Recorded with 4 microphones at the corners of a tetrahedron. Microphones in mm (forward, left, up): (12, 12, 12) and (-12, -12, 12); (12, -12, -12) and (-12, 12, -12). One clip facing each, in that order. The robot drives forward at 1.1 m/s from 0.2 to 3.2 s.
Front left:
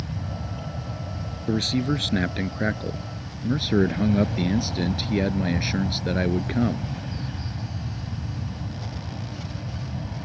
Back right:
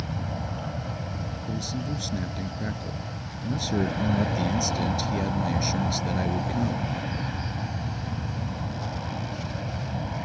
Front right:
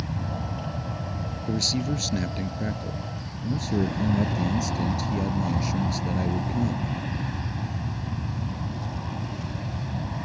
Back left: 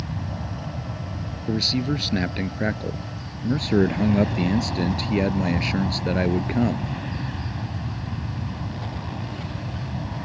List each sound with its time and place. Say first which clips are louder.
0.0 s an aircraft: back right 1 dB, even; 125° right; by 10.2 s 135° right
1.5 s a man speaking: front left 10 dB, back left 4 dB; 70° left; by 6.9 s 105° left